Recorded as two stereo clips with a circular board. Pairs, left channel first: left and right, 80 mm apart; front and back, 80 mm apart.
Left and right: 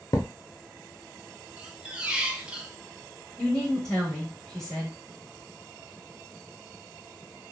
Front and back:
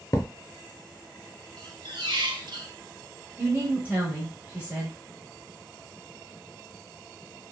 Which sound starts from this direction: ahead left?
A thud, at 0.1 s.